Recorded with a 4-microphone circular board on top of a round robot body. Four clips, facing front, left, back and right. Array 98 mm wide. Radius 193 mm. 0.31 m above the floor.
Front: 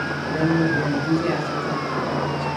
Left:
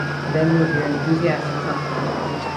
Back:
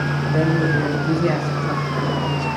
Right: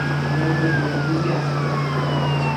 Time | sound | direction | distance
0.3 | a man speaking | 105° left | 3 m